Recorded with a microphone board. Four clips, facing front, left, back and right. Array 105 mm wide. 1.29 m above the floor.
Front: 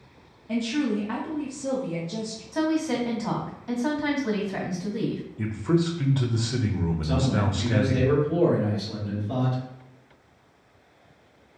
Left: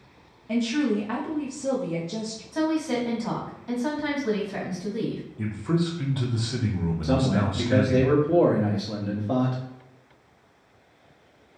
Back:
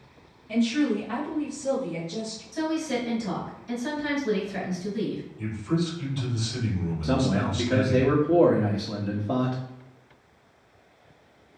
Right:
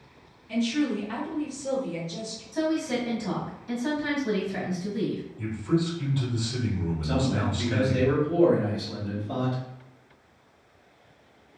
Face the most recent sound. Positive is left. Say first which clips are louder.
# left 4 dB, back 3 dB
turn(degrees=140)